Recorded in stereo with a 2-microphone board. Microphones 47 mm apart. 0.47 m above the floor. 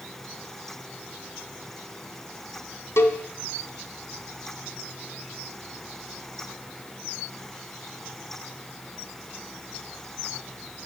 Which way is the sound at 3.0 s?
65° left (ahead or behind).